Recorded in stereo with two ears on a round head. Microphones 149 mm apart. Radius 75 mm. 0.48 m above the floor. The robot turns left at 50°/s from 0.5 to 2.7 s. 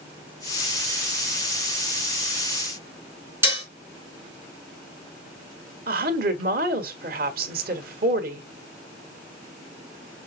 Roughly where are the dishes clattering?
Centre.